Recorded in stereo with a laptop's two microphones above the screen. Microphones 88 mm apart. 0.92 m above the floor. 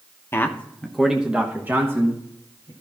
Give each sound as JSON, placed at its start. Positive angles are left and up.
{"t": 0.3, "sound": "a man speaking", "side_deg": 25, "distance_m": 0.9}